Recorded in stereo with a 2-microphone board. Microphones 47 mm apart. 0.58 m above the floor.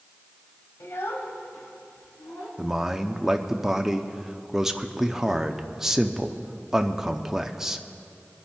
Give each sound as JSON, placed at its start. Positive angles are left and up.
{"t": 0.8, "sound": "a child speaking", "side_deg": 85, "distance_m": 1.5}
{"t": 2.6, "sound": "a man speaking", "side_deg": -10, "distance_m": 0.7}